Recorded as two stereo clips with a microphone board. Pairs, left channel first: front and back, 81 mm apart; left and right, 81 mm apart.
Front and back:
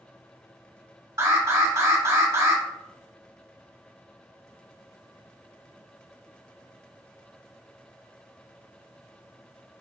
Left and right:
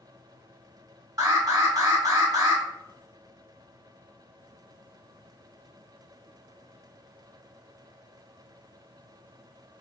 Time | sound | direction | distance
1.2 | an alarm | 130° right | 1.6 m